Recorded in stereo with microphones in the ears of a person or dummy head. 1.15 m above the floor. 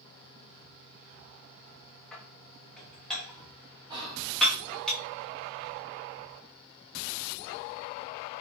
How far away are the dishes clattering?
About 1.0 m.